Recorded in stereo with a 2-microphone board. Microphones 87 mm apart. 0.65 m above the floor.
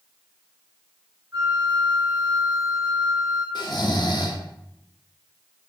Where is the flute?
35° right (ahead or behind), 2.5 m.